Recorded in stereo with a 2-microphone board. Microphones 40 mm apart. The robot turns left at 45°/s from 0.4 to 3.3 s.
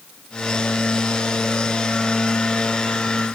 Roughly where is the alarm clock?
No alarm clock in this recording.